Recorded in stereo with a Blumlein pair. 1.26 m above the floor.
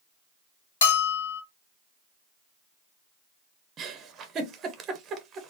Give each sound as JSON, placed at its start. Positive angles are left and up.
{"t": 0.8, "sound": "a bell", "azimuth_deg": 55, "distance_m": 1.0}
{"t": 3.8, "sound": "a giggle", "azimuth_deg": -25, "distance_m": 0.7}